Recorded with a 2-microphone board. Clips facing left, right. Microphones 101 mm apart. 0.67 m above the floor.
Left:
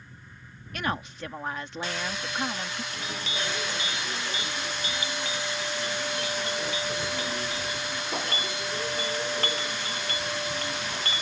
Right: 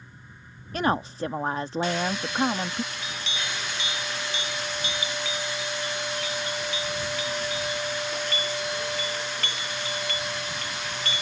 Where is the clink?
40° left (ahead or behind).